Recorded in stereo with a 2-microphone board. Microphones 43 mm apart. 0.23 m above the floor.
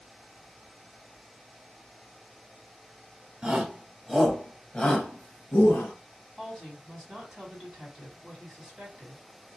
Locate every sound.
3.4 s a shout: 20° right (ahead or behind), 1.2 m; by 5.9 s 45° left (ahead or behind), 1.4 m
6.4 s a woman speaking: 10° right (ahead or behind), 1.7 m